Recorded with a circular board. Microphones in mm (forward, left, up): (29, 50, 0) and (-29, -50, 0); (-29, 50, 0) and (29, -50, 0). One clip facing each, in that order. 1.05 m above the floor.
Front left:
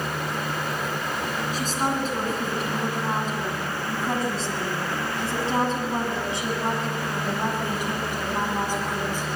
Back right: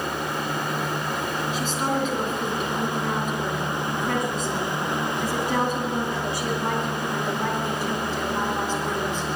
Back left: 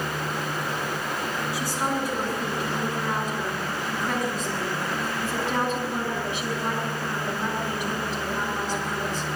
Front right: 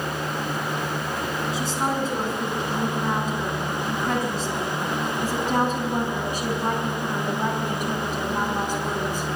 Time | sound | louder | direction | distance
1.5 | a woman speaking | even, front right 2 dB | 10° left | 8 m